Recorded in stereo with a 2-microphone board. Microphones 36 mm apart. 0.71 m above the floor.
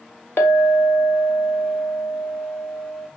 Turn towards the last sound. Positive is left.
turn(degrees=70)  # may be behind; listen again after turning